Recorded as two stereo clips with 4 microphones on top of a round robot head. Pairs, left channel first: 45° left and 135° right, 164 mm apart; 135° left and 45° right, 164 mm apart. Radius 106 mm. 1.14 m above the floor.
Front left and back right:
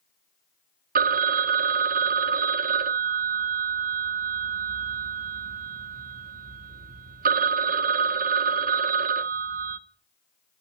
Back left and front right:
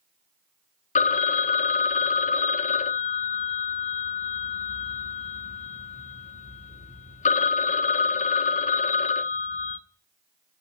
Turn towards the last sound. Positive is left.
turn(degrees=-175)